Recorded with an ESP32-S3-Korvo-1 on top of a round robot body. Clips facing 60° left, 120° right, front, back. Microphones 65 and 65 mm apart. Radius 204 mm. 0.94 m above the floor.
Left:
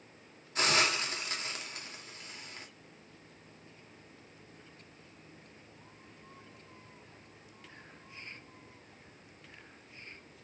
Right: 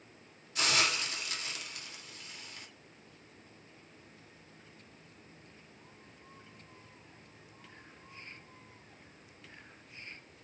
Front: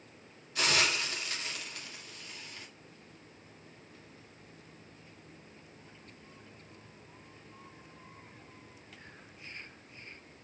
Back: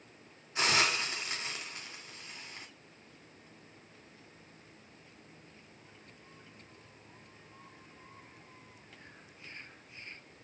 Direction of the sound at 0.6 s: 115° left.